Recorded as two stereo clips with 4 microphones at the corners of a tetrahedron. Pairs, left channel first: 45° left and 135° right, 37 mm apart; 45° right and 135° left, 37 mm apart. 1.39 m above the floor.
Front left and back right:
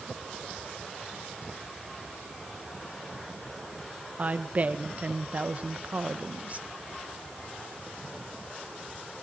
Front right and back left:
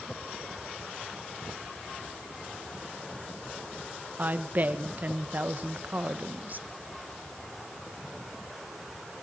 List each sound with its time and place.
4.2 s a woman speaking: 175° left, 1.7 m